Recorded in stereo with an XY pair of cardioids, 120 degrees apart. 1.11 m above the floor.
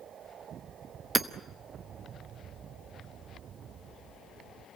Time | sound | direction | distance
1.1 | hammering | 20° right | 0.9 m